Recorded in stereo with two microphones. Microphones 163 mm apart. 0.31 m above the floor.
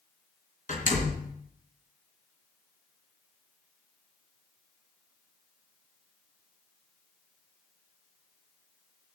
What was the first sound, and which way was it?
A door slam, 50° left (ahead or behind).